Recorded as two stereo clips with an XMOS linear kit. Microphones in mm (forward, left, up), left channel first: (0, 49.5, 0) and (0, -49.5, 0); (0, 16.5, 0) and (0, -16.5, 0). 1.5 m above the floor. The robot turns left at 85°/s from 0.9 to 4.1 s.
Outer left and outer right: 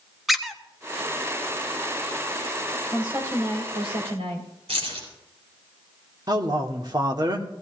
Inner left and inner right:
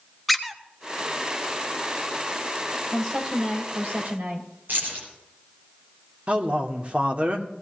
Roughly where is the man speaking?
Right.